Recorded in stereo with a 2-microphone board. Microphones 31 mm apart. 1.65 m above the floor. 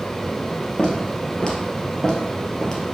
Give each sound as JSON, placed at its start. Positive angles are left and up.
{"t": 0.8, "sound": "footsteps", "side_deg": 25, "distance_m": 1.8}